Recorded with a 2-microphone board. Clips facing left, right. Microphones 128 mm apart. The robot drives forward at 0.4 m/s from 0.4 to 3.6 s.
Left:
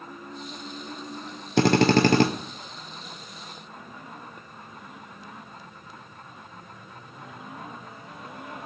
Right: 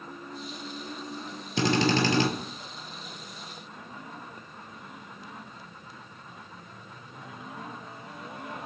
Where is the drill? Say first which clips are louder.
Left 6 dB; 60° left (ahead or behind), 0.8 m; by 2.3 s 55° left (ahead or behind), 0.8 m.